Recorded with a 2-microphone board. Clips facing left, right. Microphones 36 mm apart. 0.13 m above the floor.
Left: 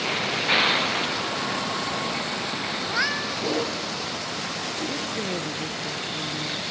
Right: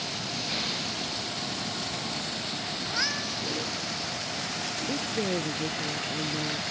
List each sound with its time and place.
0.0 s a vehicle: 60° left (ahead or behind); by 6.7 s 40° left (ahead or behind)
2.8 s a cat meowing: 25° left (ahead or behind)
4.9 s a woman speaking: 15° right (ahead or behind)